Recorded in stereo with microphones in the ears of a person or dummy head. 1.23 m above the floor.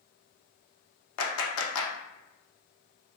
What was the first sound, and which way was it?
A clap, 75° left (ahead or behind).